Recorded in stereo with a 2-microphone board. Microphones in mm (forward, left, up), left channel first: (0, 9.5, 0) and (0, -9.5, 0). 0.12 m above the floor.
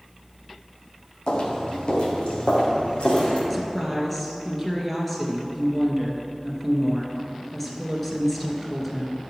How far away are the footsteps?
About 2 m.